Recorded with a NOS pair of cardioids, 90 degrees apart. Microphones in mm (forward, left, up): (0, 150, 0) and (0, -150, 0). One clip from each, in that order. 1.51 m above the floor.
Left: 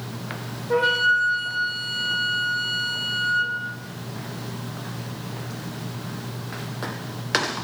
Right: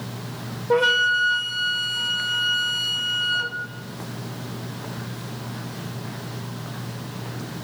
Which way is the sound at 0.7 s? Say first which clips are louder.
Right 1 dB; 50° right.